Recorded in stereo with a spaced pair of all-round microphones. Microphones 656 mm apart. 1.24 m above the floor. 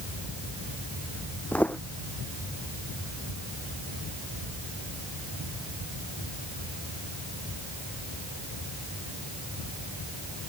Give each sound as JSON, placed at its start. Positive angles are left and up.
{"t": 1.5, "sound": "footsteps", "side_deg": 5}